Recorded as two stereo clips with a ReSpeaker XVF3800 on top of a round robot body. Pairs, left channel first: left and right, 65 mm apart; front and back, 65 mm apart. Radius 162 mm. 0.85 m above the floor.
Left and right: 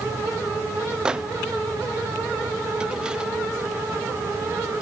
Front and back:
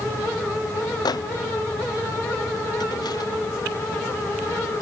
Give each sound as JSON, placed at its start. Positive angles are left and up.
{"t": 1.1, "sound": "a microwave", "azimuth_deg": -10, "distance_m": 0.7}